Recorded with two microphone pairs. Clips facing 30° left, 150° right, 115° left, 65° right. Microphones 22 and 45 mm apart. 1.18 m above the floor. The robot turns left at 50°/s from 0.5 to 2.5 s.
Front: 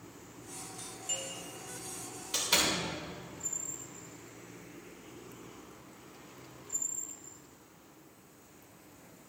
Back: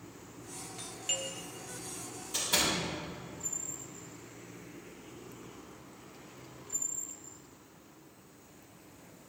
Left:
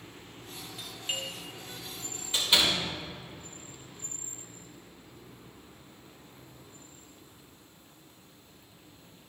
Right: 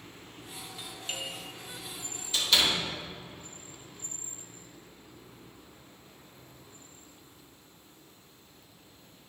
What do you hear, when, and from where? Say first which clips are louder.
0.8 s a doorbell: back 4 dB, left 3 dB; 165° right, 1.1 m; by 1.3 s 170° left, 1.1 m
2.3 s a door slam: front 1 dB, even; 50° left, 3 m; by 2.8 s 45° left, 3 m